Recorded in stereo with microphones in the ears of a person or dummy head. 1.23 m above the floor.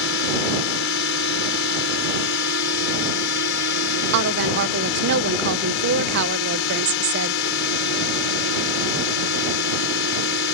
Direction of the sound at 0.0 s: 60° left (ahead or behind).